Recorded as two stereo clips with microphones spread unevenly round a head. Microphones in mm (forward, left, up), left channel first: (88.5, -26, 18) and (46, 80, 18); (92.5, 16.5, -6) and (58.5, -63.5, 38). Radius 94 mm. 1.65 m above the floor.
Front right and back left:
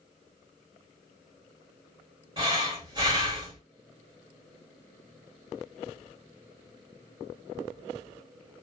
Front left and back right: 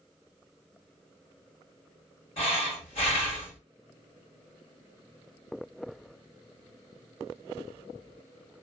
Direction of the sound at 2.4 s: 70° left.